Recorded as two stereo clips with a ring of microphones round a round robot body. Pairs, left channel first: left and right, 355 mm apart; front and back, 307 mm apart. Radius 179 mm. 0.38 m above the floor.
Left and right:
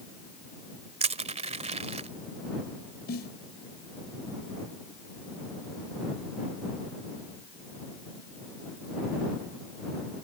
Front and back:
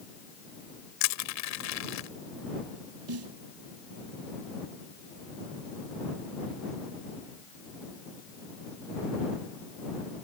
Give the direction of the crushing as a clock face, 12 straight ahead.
1 o'clock.